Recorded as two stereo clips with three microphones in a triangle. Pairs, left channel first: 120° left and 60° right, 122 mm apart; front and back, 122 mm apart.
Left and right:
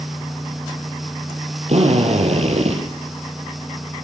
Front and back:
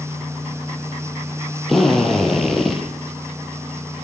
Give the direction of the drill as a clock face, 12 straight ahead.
3 o'clock.